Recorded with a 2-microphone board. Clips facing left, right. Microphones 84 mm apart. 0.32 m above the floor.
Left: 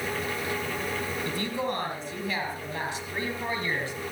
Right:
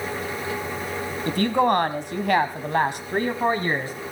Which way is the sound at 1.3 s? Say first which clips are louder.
Right 14 dB; 55° right (ahead or behind).